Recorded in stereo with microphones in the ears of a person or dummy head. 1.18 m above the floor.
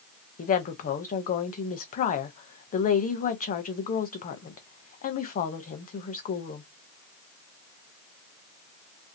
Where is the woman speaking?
45° left (ahead or behind), 0.6 m.